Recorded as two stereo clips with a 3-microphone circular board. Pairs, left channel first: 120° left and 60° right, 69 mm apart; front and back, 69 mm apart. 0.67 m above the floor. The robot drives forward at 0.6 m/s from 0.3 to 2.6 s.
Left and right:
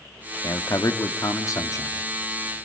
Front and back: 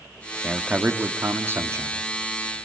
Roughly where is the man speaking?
Left.